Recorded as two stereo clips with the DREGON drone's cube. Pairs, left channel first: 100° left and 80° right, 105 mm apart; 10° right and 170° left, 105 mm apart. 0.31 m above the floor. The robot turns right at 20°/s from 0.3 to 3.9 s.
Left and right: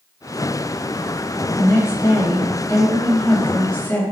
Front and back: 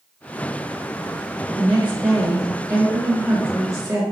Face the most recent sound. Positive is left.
turn(degrees=160)